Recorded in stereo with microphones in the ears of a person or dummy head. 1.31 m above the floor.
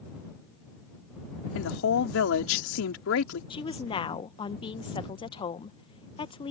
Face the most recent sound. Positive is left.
turn(degrees=20)  # may be behind; listen again after turning